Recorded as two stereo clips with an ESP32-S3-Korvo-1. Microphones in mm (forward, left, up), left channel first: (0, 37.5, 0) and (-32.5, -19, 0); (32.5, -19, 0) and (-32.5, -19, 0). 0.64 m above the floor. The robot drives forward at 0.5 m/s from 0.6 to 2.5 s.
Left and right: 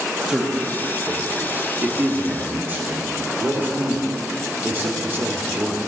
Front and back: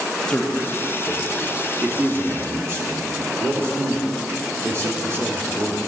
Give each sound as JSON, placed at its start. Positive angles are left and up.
{"t": 0.3, "sound": "a man speaking", "azimuth_deg": -60, "distance_m": 0.9}